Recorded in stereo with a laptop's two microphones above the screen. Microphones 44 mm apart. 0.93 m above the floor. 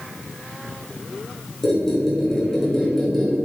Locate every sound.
1.6 s a squeak: 10° left (ahead or behind), 0.7 m